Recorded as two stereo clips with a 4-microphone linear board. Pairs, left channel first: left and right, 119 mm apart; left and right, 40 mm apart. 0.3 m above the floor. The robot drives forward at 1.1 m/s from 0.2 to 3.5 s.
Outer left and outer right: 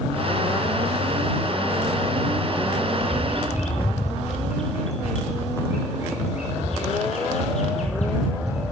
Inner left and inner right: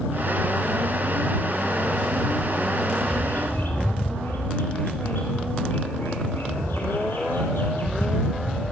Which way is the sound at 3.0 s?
60° left (ahead or behind).